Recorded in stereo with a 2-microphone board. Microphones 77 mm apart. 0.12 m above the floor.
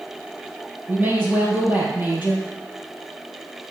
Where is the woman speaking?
25° right (ahead or behind), 3 m.